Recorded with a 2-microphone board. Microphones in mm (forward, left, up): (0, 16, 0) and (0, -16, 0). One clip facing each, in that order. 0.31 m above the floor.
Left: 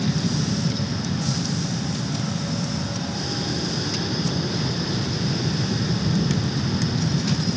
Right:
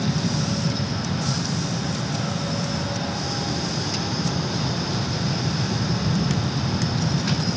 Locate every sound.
0.0 s an aircraft: 20° left (ahead or behind)